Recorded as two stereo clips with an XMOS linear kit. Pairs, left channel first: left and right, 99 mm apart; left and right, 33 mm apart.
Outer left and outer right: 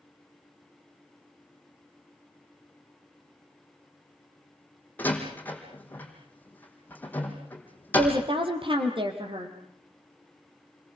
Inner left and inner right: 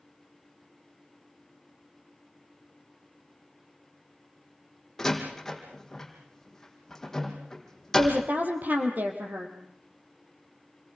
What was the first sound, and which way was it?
A door slam, 20° left (ahead or behind).